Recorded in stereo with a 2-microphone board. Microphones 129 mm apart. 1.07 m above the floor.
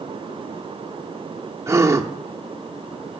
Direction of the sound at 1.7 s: 20° right (ahead or behind).